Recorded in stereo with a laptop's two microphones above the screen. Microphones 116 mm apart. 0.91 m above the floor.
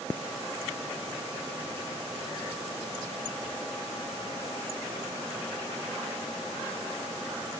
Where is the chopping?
I don't hear chopping.